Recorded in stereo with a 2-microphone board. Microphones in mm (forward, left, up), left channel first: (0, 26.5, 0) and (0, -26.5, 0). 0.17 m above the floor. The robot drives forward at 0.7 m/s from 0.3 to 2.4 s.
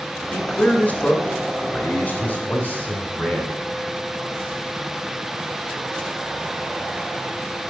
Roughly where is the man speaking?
Left.